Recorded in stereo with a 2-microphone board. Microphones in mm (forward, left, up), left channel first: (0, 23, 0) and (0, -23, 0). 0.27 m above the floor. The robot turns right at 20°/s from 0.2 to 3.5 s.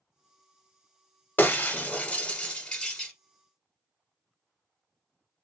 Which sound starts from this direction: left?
Breaking glass, at 1.4 s.